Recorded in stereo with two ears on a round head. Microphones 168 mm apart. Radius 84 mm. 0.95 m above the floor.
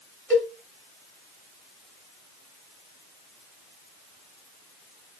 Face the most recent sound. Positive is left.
turn(degrees=5)  # may be behind; listen again after turning